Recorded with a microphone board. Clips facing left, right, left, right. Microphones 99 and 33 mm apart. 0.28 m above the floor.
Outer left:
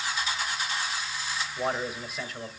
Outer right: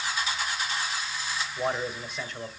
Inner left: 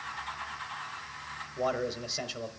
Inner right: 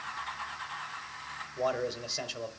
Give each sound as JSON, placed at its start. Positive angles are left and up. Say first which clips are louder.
{"t": 1.6, "sound": "a man speaking", "louder": "outer right 1 dB, even", "side_deg": 5, "distance_m": 0.9}